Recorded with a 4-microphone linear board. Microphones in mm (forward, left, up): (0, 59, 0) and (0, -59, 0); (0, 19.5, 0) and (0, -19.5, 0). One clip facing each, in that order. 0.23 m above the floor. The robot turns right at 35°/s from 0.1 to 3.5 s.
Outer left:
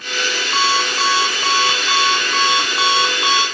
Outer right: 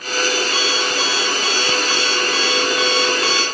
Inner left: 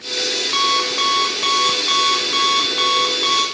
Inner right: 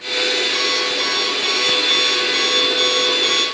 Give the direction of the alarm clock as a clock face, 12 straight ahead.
10 o'clock.